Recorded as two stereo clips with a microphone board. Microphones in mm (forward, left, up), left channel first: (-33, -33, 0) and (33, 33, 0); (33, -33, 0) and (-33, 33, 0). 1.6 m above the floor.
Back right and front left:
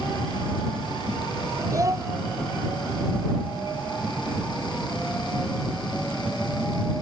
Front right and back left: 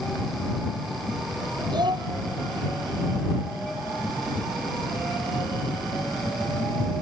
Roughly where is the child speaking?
Left.